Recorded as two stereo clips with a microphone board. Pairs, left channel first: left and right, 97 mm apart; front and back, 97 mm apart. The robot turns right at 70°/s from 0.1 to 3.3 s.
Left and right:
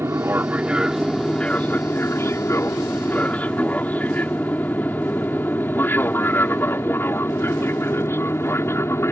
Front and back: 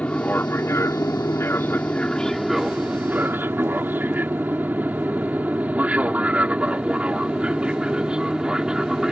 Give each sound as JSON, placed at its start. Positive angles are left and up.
{"t": 0.0, "sound": "an aircraft", "azimuth_deg": -60}